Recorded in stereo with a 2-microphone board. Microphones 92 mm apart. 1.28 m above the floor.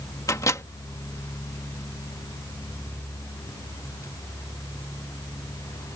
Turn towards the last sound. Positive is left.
turn(degrees=35)  # may be behind; listen again after turning